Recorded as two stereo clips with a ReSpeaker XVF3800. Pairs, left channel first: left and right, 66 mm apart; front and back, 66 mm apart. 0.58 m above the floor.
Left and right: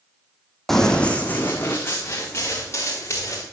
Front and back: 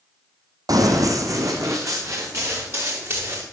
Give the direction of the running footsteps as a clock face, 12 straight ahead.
6 o'clock.